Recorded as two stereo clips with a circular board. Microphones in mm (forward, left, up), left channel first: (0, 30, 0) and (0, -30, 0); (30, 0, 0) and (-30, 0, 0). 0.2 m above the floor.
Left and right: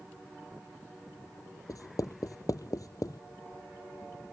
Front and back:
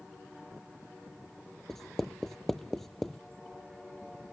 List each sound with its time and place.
1.7 s writing: 85° left